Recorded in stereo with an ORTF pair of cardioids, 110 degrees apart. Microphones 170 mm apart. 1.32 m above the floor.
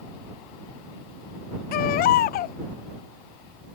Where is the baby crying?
65° left.